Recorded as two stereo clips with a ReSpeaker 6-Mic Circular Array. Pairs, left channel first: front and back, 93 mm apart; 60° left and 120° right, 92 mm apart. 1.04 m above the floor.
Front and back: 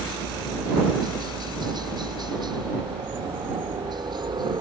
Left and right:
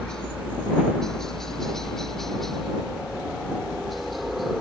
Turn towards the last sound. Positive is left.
turn(degrees=150)